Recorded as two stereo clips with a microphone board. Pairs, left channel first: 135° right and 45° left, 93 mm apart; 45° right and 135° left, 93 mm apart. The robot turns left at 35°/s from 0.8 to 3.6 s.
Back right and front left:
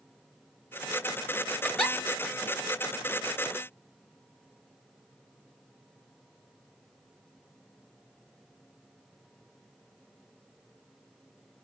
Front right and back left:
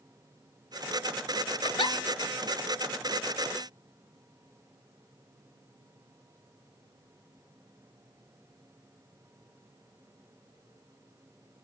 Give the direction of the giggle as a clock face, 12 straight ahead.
2 o'clock.